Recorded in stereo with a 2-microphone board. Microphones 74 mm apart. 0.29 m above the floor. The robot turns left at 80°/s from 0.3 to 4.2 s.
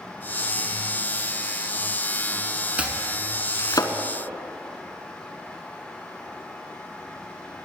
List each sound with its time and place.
2.8 s chopping: 20° right (ahead or behind), 0.9 m; by 3.9 s 70° left (ahead or behind), 0.9 m